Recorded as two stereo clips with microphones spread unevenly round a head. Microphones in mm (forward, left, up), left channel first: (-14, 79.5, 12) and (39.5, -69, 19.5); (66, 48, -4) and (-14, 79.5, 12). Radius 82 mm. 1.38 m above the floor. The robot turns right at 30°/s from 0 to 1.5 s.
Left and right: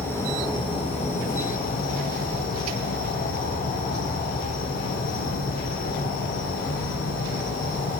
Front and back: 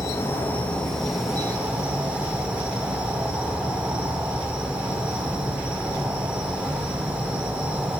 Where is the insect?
30° left, 0.9 m; by 8.0 s 75° left, 0.9 m.